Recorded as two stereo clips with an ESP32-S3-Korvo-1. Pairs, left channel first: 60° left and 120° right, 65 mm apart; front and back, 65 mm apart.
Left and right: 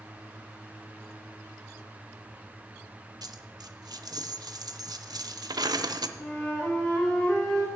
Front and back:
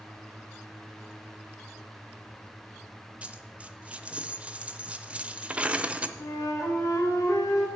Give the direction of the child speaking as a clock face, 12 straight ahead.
I don't hear a child speaking.